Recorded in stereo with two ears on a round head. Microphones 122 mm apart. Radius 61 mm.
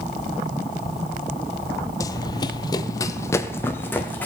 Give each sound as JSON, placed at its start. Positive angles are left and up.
{"t": 2.0, "sound": "running footsteps", "side_deg": 25, "distance_m": 0.8}